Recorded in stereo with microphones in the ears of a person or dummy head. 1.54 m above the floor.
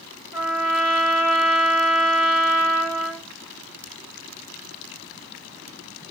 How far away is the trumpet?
About 3 m.